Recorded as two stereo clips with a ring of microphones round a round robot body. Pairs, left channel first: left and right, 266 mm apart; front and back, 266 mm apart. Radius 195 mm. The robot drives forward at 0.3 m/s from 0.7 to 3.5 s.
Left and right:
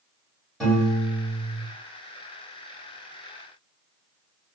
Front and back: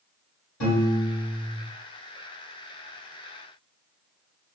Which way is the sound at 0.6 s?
5° left.